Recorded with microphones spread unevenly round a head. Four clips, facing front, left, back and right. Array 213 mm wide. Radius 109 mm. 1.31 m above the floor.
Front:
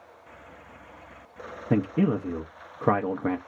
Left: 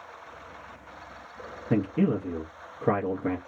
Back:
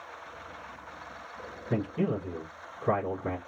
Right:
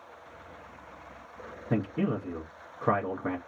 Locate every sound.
1.7 s a man speaking: 10° left, 0.6 m